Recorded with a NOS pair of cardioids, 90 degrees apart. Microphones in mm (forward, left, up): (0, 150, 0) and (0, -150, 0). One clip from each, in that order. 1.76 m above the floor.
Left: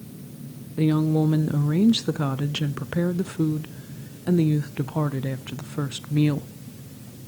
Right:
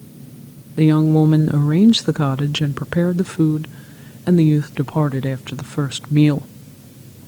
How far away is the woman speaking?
About 0.5 m.